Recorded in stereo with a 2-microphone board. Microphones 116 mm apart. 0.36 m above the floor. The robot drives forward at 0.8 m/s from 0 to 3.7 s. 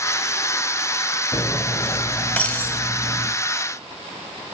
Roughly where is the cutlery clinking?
Left.